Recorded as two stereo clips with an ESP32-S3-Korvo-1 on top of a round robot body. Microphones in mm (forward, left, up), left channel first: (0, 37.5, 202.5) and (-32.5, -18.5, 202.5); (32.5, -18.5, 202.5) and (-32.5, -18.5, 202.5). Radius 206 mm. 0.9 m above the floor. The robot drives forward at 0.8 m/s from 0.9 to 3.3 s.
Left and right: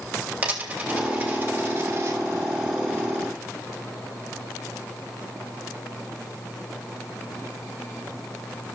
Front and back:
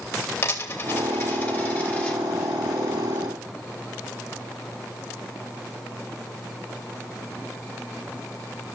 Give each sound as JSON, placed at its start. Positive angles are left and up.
{"t": 0.4, "sound": "a dropped coin", "azimuth_deg": -45, "distance_m": 2.5}